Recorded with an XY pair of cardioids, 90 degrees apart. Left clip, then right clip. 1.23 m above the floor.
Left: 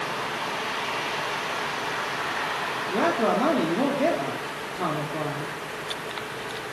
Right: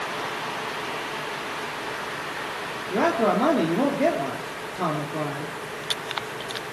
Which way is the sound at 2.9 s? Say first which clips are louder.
Right 2 dB; 10° right.